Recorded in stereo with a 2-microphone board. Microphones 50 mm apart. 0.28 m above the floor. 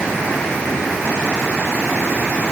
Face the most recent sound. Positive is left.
No sound to turn to.